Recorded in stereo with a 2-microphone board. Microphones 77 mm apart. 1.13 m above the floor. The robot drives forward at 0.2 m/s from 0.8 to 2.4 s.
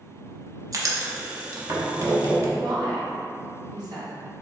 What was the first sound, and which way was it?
Writing, 50° right (ahead or behind).